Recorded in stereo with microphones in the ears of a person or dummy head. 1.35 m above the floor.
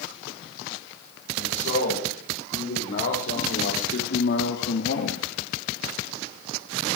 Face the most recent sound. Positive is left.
turn(degrees=55)  # may be behind; listen again after turning